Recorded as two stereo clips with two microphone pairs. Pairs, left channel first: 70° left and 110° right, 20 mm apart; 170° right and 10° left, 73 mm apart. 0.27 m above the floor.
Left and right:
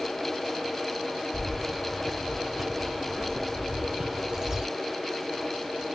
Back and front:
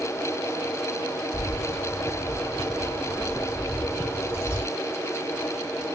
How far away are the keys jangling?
About 0.8 m.